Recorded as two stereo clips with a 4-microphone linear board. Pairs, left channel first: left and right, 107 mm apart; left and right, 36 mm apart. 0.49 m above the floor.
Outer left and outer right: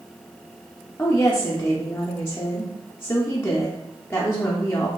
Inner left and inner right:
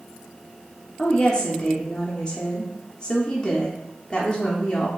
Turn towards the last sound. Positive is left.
turn(degrees=20)  # may be behind; listen again after turning